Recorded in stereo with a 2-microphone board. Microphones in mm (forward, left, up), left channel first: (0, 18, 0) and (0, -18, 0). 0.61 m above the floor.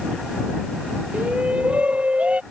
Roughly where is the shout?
Right.